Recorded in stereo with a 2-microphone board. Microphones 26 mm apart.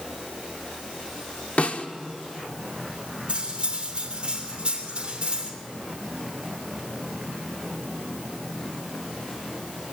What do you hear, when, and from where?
1.6 s a snare drum: 55° left (ahead or behind), 1.6 m
3.3 s cutlery clinking: 35° right (ahead or behind), 3 m